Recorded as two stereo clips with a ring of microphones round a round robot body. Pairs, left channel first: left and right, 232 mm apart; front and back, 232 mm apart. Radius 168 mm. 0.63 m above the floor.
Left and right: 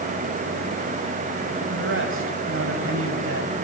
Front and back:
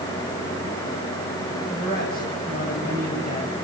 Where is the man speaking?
60° right, 4.5 m.